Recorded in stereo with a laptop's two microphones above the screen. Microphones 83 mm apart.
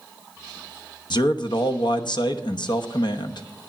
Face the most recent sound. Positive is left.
turn(degrees=65)  # may be behind; listen again after turning